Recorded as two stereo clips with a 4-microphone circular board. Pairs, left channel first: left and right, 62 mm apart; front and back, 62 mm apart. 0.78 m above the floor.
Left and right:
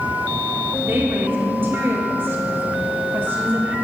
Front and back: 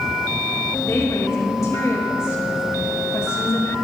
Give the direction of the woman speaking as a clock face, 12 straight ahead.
1 o'clock.